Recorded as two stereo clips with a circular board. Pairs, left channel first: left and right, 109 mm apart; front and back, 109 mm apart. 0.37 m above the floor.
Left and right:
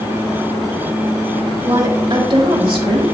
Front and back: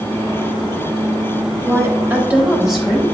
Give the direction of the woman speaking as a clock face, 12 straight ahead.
4 o'clock.